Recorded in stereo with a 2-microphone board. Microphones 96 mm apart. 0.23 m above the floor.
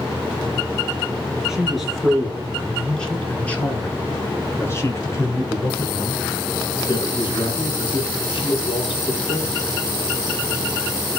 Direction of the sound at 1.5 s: 5° right (ahead or behind).